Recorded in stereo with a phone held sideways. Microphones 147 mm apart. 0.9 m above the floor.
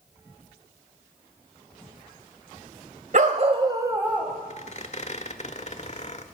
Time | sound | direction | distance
3.1 | a dog barking | 60° right (ahead or behind) | 1.5 m
4.5 | a squeak | 45° left (ahead or behind) | 0.9 m